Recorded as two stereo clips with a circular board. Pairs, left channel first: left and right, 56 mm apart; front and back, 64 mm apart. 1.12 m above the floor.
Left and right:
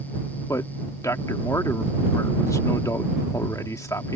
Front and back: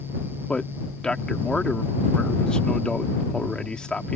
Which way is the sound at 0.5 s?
75° left.